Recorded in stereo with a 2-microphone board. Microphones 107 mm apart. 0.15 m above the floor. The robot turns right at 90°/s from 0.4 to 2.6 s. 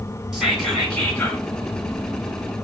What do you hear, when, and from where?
0.3 s whispering: 5° right (ahead or behind), 1.4 m; by 1.4 s 20° left (ahead or behind), 1.4 m